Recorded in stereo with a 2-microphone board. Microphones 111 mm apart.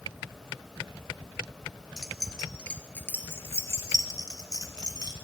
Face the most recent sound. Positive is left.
turn(degrees=45)  # may be behind; listen again after turning